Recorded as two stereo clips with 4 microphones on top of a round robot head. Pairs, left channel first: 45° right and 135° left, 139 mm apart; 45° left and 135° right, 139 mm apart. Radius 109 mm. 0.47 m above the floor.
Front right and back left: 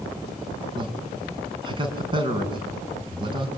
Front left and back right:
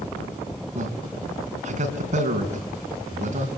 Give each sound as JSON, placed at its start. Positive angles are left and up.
{"t": 0.8, "sound": "a man speaking", "azimuth_deg": -170, "distance_m": 5.0}